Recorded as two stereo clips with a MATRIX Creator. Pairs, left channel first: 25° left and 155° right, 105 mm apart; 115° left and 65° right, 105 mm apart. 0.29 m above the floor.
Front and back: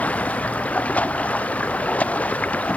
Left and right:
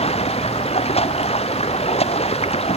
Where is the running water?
100° left.